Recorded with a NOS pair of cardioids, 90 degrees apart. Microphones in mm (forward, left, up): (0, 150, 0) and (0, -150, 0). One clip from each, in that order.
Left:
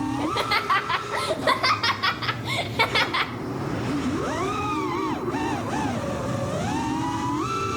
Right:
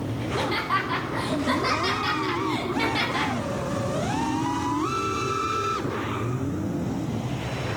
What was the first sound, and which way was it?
Laughter, 55° left.